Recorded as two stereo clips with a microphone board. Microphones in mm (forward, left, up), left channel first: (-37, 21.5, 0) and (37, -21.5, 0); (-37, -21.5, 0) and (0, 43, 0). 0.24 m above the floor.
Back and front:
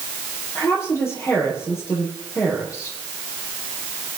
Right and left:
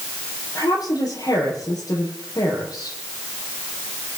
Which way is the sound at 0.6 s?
150° right.